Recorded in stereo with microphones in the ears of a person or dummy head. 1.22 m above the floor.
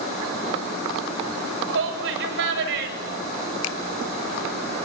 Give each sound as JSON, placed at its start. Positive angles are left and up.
{"t": 1.7, "sound": "a shout", "side_deg": -70, "distance_m": 6.5}
{"t": 3.6, "sound": "a finger snap", "side_deg": 90, "distance_m": 1.4}